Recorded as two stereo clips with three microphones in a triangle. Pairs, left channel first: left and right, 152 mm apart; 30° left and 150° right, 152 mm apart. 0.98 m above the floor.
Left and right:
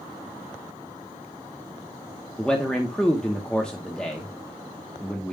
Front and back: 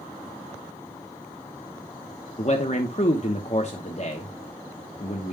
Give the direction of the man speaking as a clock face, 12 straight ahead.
12 o'clock.